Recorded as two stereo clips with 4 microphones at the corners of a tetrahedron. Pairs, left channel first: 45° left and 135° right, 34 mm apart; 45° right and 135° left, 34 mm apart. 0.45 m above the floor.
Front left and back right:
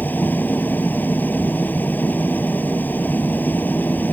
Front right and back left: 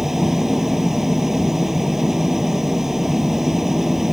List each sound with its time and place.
0.0 s an engine running: 60° left